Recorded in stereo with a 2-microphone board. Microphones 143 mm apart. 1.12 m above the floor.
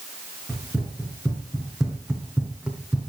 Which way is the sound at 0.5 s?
Centre (ahead or behind).